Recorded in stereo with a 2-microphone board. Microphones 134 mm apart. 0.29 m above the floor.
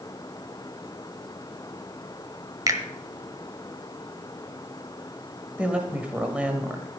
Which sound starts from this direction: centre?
A woman speaking, at 5.6 s.